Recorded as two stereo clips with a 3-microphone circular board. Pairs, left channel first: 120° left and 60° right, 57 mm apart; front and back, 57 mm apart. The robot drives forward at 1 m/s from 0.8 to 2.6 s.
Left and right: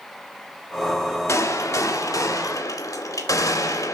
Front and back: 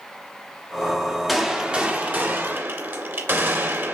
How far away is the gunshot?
About 1.7 m.